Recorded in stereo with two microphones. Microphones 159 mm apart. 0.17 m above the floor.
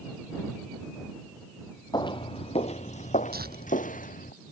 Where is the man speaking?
No man speaking in this recording.